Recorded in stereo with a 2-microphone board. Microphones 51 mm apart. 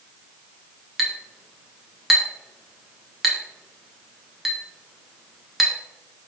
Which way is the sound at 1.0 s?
5° right (ahead or behind).